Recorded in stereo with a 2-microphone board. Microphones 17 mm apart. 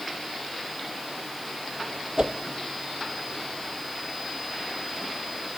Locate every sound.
2.2 s a whoosh: 55° right (ahead or behind), 1.0 m